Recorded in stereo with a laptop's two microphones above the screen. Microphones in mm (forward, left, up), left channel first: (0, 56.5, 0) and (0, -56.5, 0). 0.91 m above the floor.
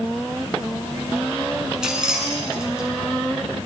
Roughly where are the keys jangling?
Centre.